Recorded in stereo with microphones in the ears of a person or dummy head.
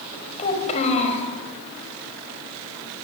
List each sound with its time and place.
0.4 s a child speaking: 35° left (ahead or behind), 5.5 m